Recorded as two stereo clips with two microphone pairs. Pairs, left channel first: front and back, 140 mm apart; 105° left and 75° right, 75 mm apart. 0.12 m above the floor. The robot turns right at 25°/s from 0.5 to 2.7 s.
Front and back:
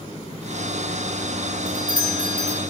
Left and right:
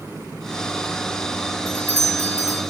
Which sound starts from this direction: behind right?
A doorbell, at 1.7 s.